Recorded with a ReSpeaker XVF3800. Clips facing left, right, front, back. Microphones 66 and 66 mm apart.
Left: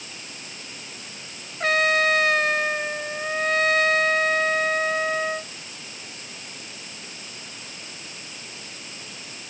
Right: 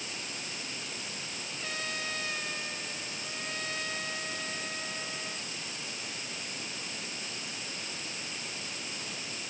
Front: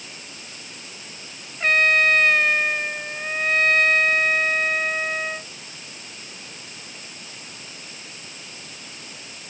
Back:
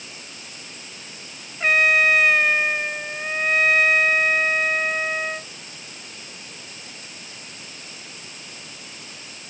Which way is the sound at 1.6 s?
95° left.